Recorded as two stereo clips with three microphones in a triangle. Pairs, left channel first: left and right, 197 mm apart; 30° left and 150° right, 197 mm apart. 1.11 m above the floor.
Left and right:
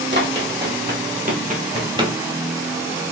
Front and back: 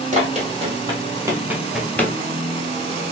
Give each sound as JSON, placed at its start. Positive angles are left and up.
{"t": 0.1, "sound": "running footsteps", "azimuth_deg": -100, "distance_m": 2.0}